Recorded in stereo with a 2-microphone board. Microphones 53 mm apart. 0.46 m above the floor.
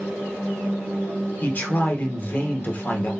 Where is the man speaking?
35° left (ahead or behind), 0.9 m.